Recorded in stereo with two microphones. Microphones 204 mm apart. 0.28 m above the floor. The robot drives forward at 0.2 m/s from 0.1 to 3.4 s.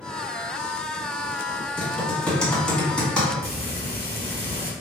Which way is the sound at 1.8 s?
5° left (ahead or behind).